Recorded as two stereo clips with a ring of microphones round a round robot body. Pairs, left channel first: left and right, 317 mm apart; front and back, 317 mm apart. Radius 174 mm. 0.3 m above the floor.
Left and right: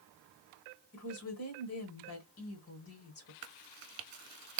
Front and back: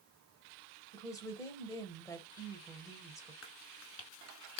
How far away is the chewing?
About 0.9 m.